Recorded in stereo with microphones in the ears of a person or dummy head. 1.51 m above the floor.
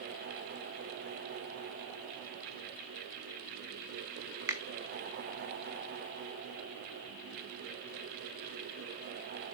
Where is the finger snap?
15° right (ahead or behind), 0.5 m.